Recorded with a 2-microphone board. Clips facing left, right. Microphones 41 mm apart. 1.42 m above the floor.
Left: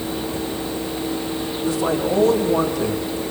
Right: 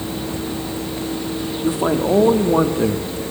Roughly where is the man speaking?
Right.